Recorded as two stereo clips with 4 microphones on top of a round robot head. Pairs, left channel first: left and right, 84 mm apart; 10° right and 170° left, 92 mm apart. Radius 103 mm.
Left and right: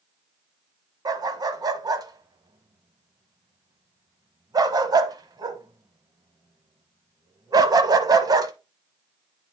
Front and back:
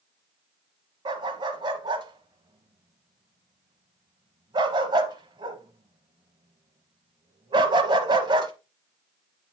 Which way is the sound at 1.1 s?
135° right.